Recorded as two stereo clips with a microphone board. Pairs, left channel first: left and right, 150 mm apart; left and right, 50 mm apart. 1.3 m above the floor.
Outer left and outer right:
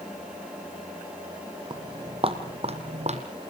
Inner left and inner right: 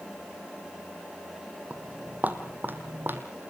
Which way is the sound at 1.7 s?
30° right (ahead or behind).